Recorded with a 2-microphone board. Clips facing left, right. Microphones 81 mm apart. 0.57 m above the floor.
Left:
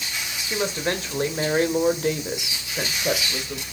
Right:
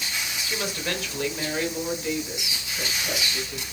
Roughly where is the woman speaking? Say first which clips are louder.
Left 6 dB; left.